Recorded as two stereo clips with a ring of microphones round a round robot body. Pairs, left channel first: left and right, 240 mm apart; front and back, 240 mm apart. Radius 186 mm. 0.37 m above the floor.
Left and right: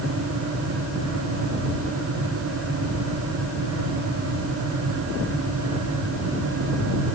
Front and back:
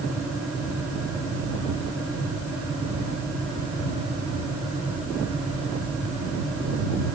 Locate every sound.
Only background noise.